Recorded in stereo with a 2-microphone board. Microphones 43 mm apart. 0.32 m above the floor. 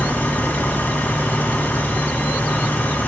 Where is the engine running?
45° left (ahead or behind), 1.8 m.